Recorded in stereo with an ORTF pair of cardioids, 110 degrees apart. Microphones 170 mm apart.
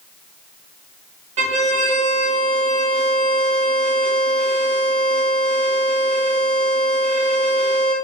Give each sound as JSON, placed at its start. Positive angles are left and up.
{"t": 1.4, "sound": "a violin", "azimuth_deg": -40, "distance_m": 0.6}